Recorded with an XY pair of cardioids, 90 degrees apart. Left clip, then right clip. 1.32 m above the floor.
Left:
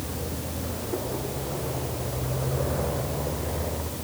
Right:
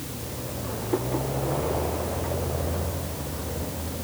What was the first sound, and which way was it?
Only background noise.